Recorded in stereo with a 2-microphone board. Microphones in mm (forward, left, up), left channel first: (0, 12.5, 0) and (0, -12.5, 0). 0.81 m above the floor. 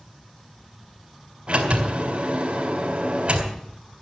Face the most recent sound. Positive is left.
turn(degrees=-50)  # may be behind; listen again after turning